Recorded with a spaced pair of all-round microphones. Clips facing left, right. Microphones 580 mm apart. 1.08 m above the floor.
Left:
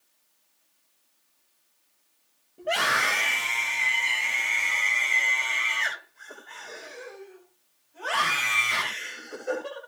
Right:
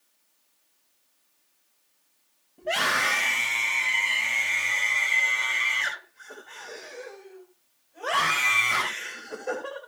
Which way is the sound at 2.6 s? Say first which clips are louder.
Even; 20° right (ahead or behind).